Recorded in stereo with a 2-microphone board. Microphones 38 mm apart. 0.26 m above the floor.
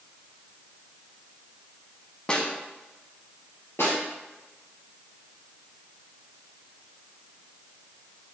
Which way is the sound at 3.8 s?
75° left (ahead or behind).